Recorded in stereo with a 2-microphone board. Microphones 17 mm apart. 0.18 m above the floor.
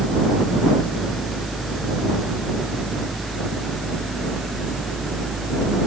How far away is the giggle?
I don't hear a giggle.